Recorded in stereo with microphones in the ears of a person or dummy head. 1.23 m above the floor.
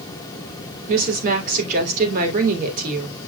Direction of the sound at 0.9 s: 50° right (ahead or behind).